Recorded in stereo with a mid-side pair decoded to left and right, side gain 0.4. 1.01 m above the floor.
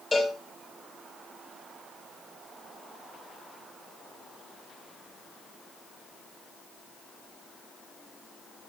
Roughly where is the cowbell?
Ahead left.